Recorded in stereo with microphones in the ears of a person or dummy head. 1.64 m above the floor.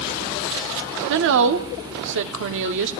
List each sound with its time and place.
1.1 s a woman speaking: 65° right (ahead or behind), 0.9 m